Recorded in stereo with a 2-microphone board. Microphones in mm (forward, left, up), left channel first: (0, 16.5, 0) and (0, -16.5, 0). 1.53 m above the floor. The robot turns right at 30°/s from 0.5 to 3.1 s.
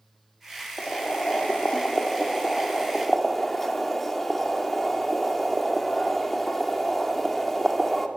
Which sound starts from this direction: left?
Boiling, at 0.8 s.